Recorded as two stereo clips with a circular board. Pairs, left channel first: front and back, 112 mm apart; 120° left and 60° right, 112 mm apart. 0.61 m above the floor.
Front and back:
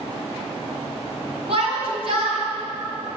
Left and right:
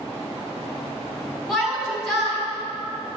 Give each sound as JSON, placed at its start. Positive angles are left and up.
{"t": 1.5, "sound": "a shout", "azimuth_deg": -150, "distance_m": 5.0}